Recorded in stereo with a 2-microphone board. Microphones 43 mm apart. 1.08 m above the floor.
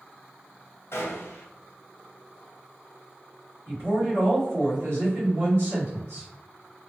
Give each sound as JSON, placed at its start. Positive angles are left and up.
{"t": 0.9, "sound": "a gunshot", "side_deg": 75, "distance_m": 0.5}
{"t": 3.7, "sound": "a woman speaking", "side_deg": -60, "distance_m": 1.4}